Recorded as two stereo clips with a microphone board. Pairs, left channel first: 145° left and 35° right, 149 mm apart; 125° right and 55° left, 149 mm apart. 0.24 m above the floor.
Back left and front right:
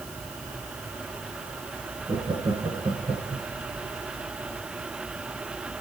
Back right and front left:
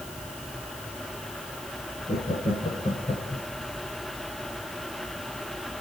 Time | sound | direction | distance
2.1 | laughter | 90° right | 3.5 m